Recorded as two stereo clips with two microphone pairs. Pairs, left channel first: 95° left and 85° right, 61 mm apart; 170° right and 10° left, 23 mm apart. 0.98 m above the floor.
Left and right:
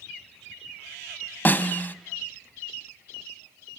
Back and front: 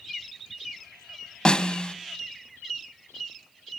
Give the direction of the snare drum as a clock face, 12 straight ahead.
7 o'clock.